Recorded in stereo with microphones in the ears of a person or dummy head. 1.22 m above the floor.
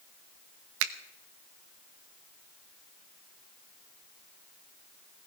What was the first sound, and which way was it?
A finger snap, 75° right (ahead or behind).